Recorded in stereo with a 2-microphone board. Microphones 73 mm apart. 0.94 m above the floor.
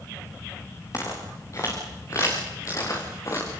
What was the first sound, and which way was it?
Footsteps, 40° left (ahead or behind).